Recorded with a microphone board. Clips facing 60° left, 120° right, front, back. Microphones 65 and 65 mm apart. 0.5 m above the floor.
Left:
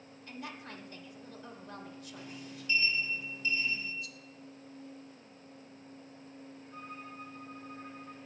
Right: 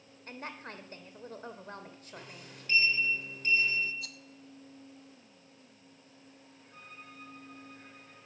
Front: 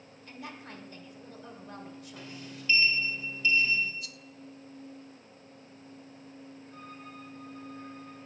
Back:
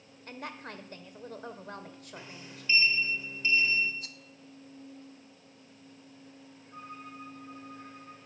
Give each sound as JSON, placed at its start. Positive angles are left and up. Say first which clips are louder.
{"t": 0.3, "sound": "a woman speaking", "louder": "right 2 dB, back 3 dB", "azimuth_deg": -160, "distance_m": 2.0}
{"t": 2.2, "sound": "a sliding door", "louder": "left 3 dB, front 2 dB", "azimuth_deg": -120, "distance_m": 2.5}
{"t": 4.0, "sound": "a rattle", "louder": "left 1 dB, front 1 dB", "azimuth_deg": -125, "distance_m": 0.7}
{"t": 6.7, "sound": "a violin", "louder": "left 5 dB, back 4 dB", "azimuth_deg": 125, "distance_m": 4.0}